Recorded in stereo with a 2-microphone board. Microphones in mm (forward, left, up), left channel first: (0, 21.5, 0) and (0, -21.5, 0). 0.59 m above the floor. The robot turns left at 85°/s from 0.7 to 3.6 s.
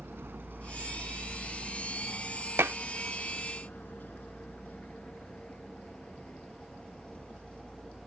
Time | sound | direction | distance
0.0 | a vehicle | 60° right (ahead or behind) | ?
2.6 | dishes clattering | 60° right (ahead or behind) | ?